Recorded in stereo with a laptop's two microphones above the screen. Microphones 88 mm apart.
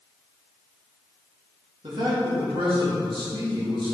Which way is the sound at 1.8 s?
70° right (ahead or behind).